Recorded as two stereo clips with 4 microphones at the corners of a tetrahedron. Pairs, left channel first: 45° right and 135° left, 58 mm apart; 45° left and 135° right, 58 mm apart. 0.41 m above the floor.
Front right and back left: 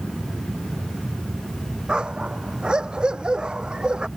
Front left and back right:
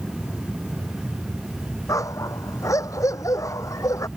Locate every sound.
1.9 s a dog barking: 60° left